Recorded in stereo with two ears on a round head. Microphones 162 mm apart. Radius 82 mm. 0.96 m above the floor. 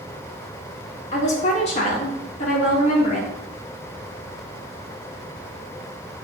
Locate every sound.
1.1 s a woman speaking: 35° left (ahead or behind), 1.1 m